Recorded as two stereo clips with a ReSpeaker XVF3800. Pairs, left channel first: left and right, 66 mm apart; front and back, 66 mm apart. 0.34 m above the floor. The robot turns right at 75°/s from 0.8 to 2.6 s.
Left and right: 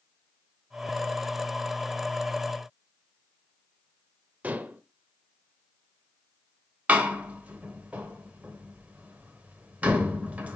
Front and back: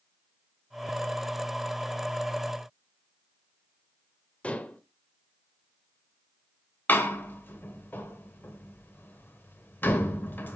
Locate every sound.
4.4 s dishes clattering: 50° right, 0.7 m
6.9 s a door slam: 35° right, 1.2 m